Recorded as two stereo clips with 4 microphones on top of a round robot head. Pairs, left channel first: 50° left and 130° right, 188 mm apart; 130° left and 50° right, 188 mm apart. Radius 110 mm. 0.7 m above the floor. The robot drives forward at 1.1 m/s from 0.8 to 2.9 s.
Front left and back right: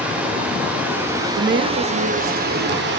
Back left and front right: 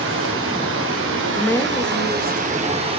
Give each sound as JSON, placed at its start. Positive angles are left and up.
{"t": 0.0, "sound": "running water", "azimuth_deg": -50, "distance_m": 2.5}
{"t": 1.4, "sound": "a woman speaking", "azimuth_deg": -140, "distance_m": 0.7}